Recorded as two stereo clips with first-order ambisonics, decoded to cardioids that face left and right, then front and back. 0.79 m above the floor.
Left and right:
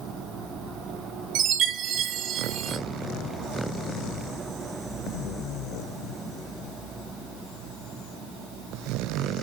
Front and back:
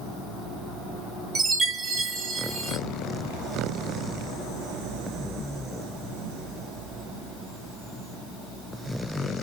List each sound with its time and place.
1.4 s a chime: 120° right, 0.9 m